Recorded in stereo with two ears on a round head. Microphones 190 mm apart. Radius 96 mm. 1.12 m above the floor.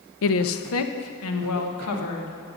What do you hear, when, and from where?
0.2 s a woman speaking: 70° left (ahead or behind), 0.6 m; by 2.4 s 75° left (ahead or behind), 2 m